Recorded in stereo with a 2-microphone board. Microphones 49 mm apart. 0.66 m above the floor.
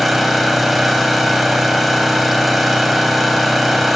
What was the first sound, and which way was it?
An engine running, 5° right (ahead or behind).